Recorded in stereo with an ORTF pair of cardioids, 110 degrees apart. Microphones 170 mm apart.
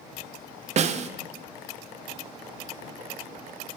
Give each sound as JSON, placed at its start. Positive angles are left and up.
{"t": 0.8, "sound": "a snare drum", "azimuth_deg": -45, "distance_m": 0.8}